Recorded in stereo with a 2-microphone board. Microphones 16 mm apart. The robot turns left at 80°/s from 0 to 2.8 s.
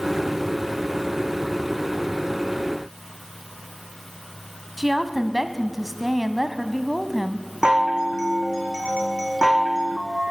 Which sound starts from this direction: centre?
A woman speaking, at 4.8 s.